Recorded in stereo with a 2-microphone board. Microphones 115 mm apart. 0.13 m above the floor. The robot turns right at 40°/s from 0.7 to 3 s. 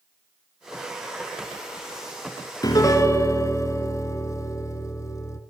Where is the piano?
35° left (ahead or behind), 0.8 m; by 5.4 s 30° left (ahead or behind), 0.8 m.